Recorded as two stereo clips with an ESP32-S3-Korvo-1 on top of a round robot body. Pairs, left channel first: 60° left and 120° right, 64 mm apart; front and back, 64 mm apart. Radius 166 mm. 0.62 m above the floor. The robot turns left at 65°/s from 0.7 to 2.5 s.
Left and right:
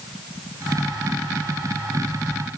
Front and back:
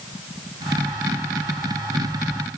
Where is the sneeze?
I don't hear a sneeze.